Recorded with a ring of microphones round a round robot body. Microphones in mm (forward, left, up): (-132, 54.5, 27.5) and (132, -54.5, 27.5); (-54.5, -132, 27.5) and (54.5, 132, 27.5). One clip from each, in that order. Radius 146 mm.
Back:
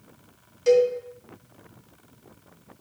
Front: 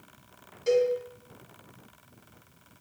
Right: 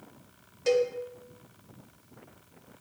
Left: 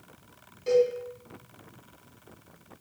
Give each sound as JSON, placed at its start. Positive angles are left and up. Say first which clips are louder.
{"t": 0.7, "sound": "a cowbell", "louder": "back 5 dB, left 2 dB", "azimuth_deg": -135, "distance_m": 1.8}